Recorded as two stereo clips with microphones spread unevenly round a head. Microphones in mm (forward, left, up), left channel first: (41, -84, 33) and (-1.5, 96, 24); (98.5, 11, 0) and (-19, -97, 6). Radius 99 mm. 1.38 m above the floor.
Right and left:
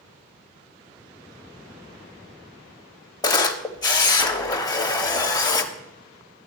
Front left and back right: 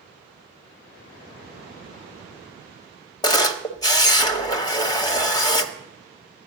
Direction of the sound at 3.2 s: 15° right.